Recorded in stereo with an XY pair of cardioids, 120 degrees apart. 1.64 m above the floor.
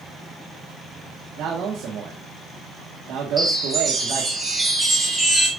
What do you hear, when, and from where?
1.4 s a man speaking: 70° right, 1.7 m
3.4 s a chime: 15° right, 3.5 m